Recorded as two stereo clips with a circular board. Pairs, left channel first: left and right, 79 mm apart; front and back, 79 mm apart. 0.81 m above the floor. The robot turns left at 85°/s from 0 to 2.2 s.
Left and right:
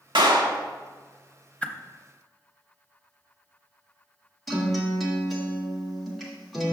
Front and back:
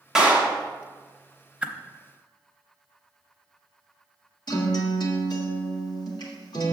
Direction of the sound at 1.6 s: 135° left.